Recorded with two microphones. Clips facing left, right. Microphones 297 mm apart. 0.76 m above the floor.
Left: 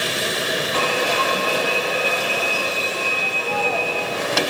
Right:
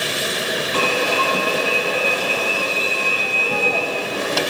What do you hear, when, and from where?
0.7 s an alarm: 40° right (ahead or behind), 1.3 m